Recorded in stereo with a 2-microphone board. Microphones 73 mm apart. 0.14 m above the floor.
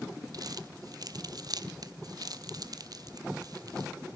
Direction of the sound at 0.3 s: 60° right (ahead or behind).